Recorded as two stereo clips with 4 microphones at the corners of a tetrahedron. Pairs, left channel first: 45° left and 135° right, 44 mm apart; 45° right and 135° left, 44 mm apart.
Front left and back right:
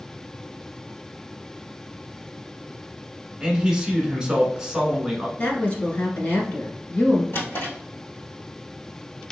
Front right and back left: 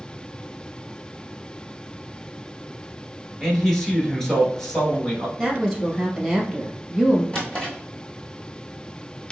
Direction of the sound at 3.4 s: 110° right.